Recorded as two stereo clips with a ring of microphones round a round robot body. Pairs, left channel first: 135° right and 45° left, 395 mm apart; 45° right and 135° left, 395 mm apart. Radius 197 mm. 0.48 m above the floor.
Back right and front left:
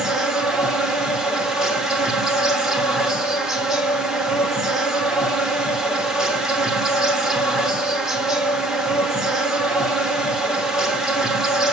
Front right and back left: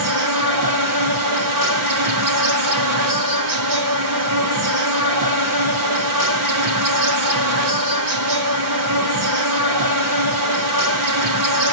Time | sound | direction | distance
0.0 | an insect | 135° left | 1.2 m